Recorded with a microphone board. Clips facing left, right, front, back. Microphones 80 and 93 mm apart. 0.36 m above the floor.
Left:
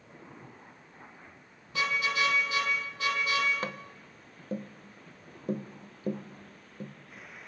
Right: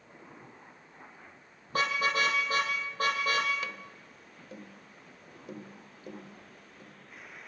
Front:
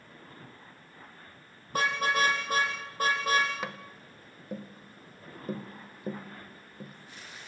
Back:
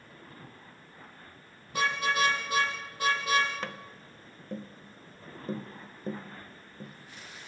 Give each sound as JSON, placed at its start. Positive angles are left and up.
{"t": 1.7, "sound": "a car horn", "azimuth_deg": -45, "distance_m": 6.0}
{"t": 3.6, "sound": "tapping", "azimuth_deg": 75, "distance_m": 1.1}